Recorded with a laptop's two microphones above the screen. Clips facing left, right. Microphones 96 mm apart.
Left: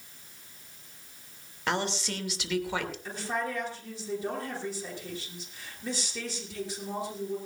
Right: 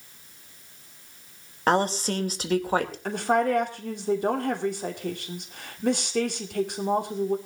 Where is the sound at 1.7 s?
40° right (ahead or behind), 2.5 m.